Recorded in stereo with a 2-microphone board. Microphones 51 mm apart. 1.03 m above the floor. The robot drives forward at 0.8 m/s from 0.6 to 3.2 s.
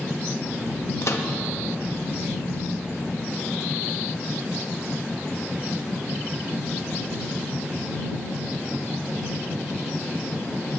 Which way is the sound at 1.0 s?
65° left (ahead or behind).